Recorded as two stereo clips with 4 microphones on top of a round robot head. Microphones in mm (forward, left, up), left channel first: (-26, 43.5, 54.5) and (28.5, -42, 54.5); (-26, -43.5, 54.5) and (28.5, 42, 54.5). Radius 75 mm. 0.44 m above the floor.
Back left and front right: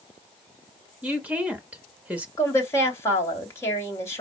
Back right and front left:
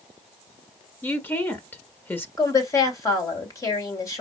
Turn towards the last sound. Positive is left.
turn(degrees=-175)